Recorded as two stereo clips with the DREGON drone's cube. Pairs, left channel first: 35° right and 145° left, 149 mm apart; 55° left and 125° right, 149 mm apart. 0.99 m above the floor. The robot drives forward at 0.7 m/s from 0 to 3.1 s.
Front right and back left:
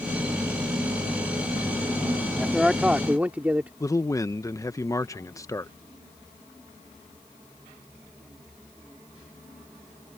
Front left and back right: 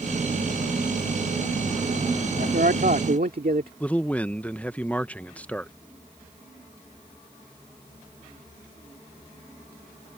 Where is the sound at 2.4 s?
120° right; by 3.7 s 135° right.